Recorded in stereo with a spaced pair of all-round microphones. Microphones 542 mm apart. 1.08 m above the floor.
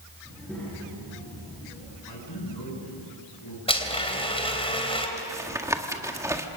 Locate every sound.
0.2 s a child speaking: centre (ahead or behind), 9 m; by 1.9 s 10° left (ahead or behind), 7 m
2.0 s a man speaking: 40° left (ahead or behind), 9.5 m
3.7 s a blender: 10° left (ahead or behind), 3 m
5.2 s tapping: 5° right (ahead or behind), 1.6 m